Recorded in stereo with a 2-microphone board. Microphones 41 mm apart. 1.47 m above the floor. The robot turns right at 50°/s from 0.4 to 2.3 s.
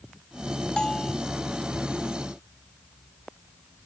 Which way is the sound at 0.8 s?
25° left (ahead or behind).